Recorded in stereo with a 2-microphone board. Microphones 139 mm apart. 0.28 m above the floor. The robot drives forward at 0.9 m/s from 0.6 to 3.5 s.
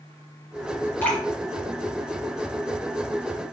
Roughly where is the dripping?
Centre.